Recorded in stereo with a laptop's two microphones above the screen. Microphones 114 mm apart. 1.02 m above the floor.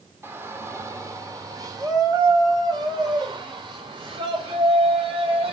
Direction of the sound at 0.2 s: 20° right (ahead or behind).